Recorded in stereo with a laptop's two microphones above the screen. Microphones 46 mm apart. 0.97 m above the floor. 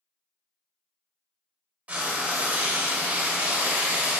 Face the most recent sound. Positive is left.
turn(degrees=-30)  # may be behind; listen again after turning